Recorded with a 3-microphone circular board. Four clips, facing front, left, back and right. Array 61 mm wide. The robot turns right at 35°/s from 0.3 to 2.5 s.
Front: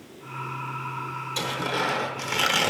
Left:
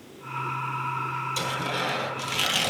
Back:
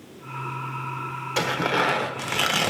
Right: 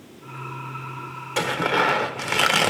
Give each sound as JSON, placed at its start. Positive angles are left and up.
{"t": 1.4, "sound": "tearing paper", "azimuth_deg": -130, "distance_m": 0.9}